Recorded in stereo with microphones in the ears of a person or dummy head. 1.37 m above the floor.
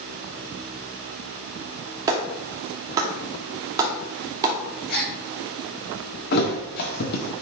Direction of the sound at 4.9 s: 55° left (ahead or behind).